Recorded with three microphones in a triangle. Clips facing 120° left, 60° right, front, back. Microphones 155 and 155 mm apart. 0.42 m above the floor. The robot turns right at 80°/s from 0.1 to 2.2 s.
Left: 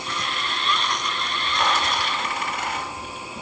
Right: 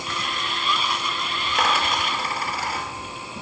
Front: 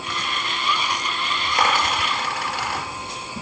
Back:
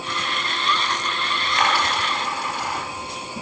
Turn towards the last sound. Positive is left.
turn(degrees=-5)